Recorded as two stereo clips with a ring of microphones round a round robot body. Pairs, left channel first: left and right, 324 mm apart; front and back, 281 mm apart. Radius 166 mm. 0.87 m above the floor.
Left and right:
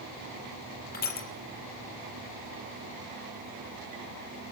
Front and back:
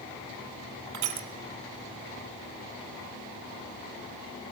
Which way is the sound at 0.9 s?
155° left.